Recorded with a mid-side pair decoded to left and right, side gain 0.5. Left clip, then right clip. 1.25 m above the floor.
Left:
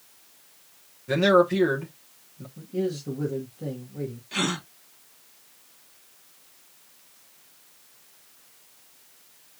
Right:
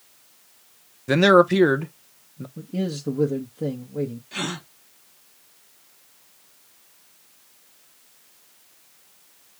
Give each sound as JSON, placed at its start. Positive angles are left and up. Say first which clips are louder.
{"t": 1.1, "sound": "a man speaking", "louder": "right 4 dB", "azimuth_deg": -50, "distance_m": 1.0}
{"t": 2.6, "sound": "a man speaking", "louder": "left 2 dB", "azimuth_deg": -50, "distance_m": 1.3}
{"t": 4.3, "sound": "a gasp", "louder": "left 6 dB", "azimuth_deg": 15, "distance_m": 1.5}